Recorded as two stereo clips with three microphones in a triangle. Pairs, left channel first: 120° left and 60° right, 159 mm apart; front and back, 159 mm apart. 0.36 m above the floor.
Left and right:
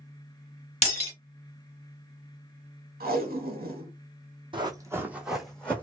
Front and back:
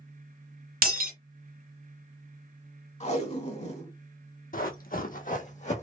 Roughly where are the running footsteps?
Ahead.